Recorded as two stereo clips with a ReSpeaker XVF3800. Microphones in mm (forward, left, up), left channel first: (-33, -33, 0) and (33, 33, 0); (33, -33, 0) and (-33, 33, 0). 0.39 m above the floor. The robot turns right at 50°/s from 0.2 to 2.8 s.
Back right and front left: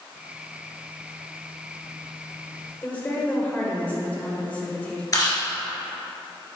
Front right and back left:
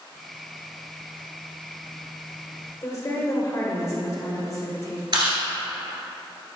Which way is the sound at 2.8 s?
70° right.